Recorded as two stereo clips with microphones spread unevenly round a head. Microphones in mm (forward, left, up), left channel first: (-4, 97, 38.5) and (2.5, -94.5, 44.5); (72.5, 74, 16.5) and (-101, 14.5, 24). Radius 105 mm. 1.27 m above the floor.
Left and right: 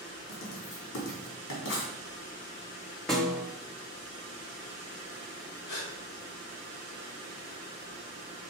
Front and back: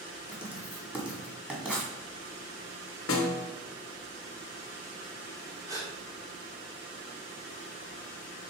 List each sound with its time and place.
0.3 s writing: 115° left, 2 m
3.1 s a snare drum: 5° left, 1.1 m
5.7 s a gasp: 125° left, 2.0 m